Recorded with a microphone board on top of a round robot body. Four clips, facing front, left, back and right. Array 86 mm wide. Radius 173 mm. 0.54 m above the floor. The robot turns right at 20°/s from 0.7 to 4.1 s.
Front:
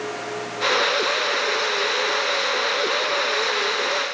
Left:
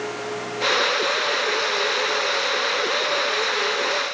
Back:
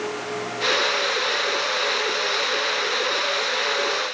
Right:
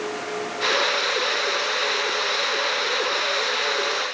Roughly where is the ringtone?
I don't hear a ringtone.